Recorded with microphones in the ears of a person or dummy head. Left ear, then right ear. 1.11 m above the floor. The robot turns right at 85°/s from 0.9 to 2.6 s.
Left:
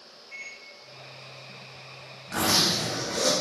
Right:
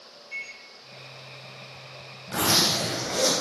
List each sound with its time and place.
0.3 s a microwave: 5° left (ahead or behind), 1.9 m
2.3 s a zipper: 5° right (ahead or behind), 1.0 m; by 3.4 s 25° right (ahead or behind), 1.0 m